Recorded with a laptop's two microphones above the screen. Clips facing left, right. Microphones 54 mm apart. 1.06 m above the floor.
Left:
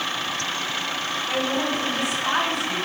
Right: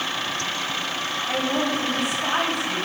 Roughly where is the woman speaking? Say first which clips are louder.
Right 1 dB; right.